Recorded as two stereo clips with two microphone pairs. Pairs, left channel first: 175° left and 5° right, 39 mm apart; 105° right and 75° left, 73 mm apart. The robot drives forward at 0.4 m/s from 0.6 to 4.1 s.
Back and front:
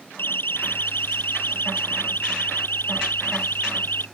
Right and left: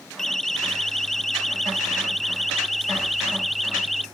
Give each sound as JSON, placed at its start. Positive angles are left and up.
{"t": 0.2, "sound": "a siren", "azimuth_deg": 165}